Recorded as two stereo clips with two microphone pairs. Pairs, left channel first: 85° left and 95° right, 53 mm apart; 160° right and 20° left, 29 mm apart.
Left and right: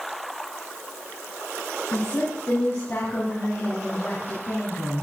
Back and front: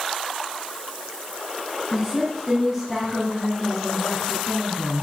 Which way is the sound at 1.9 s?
95° left.